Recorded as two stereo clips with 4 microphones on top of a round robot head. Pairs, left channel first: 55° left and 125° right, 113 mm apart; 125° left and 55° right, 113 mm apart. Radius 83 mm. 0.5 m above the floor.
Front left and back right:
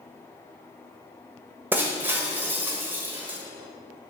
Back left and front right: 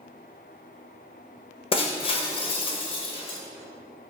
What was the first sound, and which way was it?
Breaking glass, 165° left.